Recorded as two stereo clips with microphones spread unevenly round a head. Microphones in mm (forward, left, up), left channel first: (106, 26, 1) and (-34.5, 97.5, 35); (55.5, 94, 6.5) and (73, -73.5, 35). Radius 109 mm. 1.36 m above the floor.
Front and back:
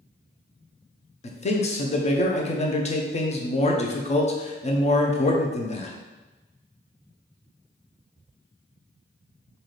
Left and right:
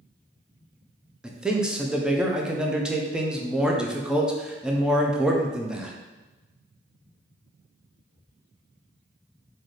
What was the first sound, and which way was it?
A man speaking, 5° left.